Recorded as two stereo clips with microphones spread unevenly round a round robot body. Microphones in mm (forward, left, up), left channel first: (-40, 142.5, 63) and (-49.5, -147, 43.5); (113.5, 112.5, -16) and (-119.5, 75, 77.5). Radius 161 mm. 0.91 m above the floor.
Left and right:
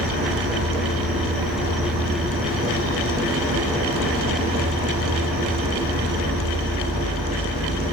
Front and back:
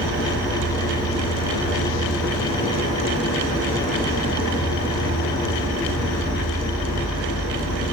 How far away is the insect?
About 1.1 m.